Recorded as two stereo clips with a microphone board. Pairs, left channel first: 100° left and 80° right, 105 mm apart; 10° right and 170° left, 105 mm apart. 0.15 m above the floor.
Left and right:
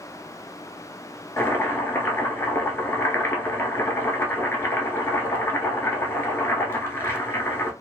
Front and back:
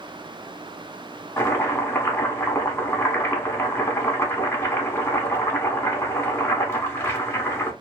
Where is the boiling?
40° left, 0.8 m.